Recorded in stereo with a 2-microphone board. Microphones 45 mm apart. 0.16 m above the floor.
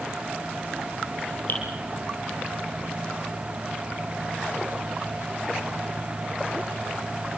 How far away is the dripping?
About 3.5 m.